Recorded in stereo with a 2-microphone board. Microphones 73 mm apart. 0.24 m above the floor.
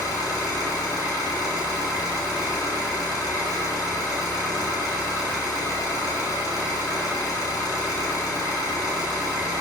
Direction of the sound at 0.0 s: 60° left (ahead or behind).